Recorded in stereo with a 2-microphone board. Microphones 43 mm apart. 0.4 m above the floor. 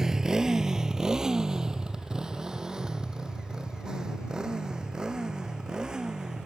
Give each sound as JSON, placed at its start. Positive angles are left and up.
{"t": 0.0, "sound": "a motorcycle", "side_deg": -15}